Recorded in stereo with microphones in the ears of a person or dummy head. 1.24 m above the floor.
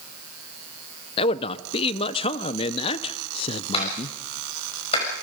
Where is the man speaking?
35° left (ahead or behind), 0.8 m.